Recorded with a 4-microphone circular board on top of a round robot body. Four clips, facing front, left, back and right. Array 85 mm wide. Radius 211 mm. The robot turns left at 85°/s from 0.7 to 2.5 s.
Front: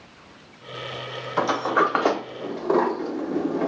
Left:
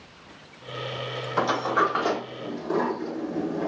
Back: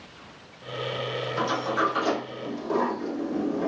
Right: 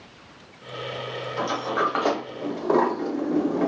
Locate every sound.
1.4 s a sliding door: 40° left, 0.6 m; by 3.7 s 55° right, 0.6 m